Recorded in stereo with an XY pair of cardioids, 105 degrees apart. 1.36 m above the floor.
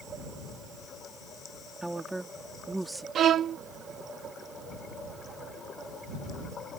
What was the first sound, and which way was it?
A woman speaking, 10° right.